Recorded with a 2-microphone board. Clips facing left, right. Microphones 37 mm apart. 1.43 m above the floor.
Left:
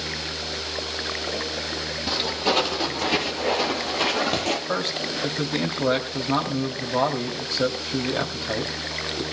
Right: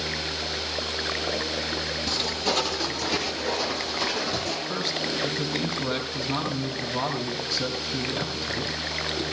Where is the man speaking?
50° left (ahead or behind), 3 m.